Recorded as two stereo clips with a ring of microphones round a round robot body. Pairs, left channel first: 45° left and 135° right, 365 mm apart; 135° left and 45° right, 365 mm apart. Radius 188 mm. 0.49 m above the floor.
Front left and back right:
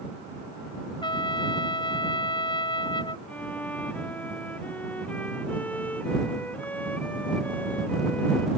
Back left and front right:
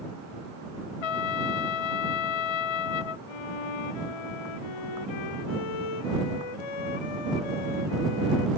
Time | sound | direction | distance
1.0 | a trumpet | 125° left | ?
3.3 | a violin | 130° left | ?